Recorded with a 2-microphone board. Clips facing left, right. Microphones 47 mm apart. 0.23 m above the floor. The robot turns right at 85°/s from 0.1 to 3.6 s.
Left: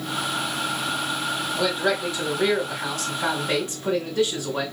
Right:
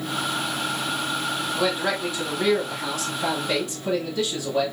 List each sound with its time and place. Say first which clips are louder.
1.6 s a man speaking: left 1 dB; 45° right, 1.3 m; by 4.7 s 130° left, 1.3 m